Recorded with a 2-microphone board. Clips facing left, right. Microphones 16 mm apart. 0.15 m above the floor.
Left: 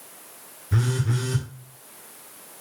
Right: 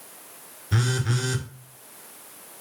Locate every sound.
0.7 s a phone buzzing: 60° right (ahead or behind), 0.6 m